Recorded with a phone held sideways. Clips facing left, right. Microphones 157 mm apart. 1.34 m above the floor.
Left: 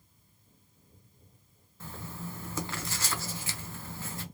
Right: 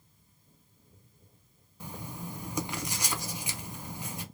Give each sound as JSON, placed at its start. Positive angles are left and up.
{"t": 1.8, "sound": "writing", "side_deg": -15, "distance_m": 0.5}